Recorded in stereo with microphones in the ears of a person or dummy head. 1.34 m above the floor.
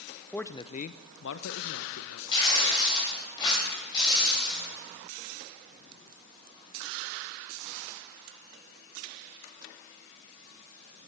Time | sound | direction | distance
0.3 | a man speaking | 5° left (ahead or behind) | 0.6 m
2.3 | tearing paper | 25° left (ahead or behind) | 5.5 m